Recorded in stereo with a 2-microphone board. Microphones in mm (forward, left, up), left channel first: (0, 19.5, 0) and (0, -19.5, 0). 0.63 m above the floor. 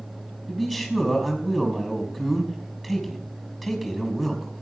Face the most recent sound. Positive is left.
turn(degrees=-5)  # may be behind; listen again after turning